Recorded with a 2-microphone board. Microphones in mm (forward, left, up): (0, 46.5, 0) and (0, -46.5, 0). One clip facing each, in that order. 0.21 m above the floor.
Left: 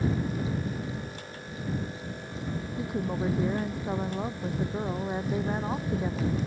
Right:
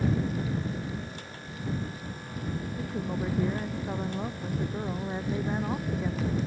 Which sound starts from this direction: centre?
A woman speaking, at 2.8 s.